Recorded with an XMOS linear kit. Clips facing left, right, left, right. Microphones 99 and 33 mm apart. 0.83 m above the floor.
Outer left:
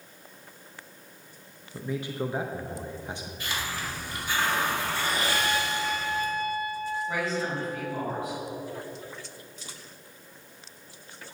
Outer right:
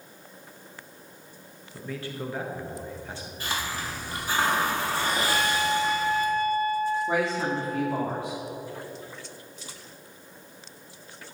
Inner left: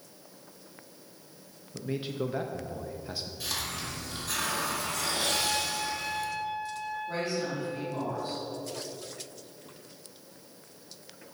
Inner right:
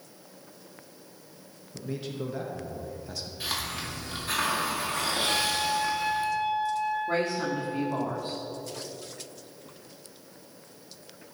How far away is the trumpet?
About 1.4 m.